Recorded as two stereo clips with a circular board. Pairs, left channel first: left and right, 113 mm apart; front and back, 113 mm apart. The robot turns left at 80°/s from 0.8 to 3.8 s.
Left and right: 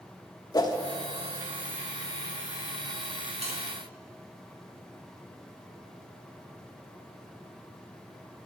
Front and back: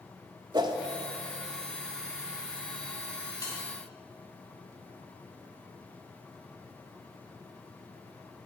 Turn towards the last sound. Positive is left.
turn(degrees=-90)